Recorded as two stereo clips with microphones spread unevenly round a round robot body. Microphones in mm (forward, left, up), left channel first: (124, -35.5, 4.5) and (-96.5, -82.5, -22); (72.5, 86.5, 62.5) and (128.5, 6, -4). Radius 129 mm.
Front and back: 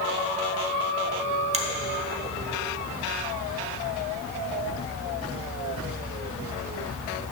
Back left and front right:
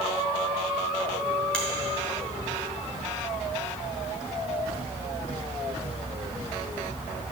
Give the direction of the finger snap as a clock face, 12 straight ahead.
4 o'clock.